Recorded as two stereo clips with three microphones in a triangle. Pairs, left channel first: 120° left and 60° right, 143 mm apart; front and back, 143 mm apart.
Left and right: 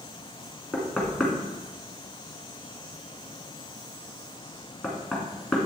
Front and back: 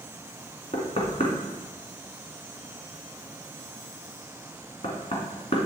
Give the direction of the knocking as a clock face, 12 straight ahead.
11 o'clock.